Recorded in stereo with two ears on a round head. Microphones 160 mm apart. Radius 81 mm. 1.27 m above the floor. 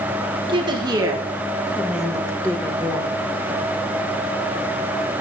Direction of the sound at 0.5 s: 30° right (ahead or behind).